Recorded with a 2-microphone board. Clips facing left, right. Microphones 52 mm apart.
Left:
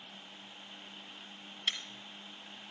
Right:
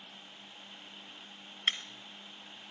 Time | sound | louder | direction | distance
1.7 | breaking glass | right 4 dB | 45° right (ahead or behind) | 0.9 m